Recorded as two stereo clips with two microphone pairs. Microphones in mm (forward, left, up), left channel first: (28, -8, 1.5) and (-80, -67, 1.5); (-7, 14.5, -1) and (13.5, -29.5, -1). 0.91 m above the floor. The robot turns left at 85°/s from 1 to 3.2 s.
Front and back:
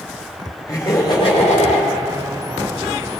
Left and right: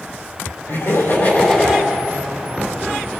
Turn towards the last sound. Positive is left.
turn(degrees=-95)